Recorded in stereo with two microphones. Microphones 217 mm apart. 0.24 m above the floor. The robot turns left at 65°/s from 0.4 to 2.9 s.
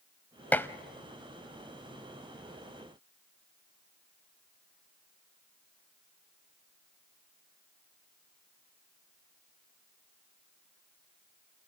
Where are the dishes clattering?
10° left (ahead or behind), 0.7 m.